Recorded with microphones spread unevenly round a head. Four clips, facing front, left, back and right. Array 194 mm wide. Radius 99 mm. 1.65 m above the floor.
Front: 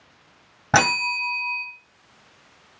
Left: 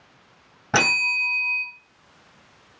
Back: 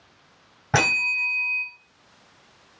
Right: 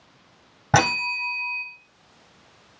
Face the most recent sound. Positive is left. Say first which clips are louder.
# right 3 dB, front 4 dB
turn(degrees=-35)